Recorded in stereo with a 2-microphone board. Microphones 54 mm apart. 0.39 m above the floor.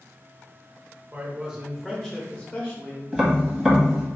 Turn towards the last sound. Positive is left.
turn(degrees=0)  # may be behind; listen again after turning